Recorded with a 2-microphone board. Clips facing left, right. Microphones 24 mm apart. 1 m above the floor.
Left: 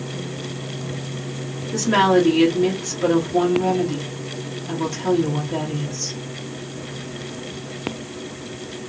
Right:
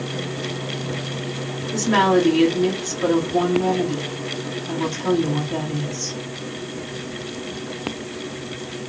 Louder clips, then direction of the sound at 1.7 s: Left 1 dB; 5° left (ahead or behind).